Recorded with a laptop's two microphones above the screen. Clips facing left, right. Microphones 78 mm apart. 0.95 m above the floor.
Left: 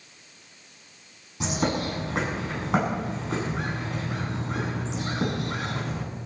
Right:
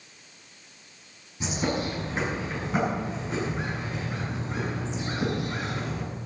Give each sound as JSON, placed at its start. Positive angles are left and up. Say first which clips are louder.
{"t": 1.4, "sound": "a bird", "louder": "left 2 dB", "side_deg": 85, "distance_m": 8.0}